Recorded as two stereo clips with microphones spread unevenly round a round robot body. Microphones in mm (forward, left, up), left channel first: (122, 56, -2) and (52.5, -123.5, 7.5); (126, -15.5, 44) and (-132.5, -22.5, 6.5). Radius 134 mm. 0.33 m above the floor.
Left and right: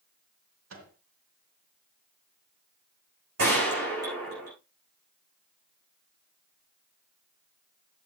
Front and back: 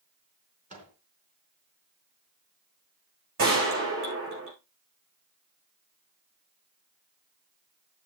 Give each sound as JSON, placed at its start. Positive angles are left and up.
{"t": 0.7, "sound": "a microwave", "azimuth_deg": -115, "distance_m": 3.5}
{"t": 3.4, "sound": "a gunshot", "azimuth_deg": -135, "distance_m": 10.0}